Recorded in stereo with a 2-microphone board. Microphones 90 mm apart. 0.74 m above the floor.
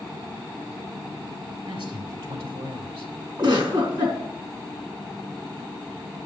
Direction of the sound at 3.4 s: 55° right (ahead or behind).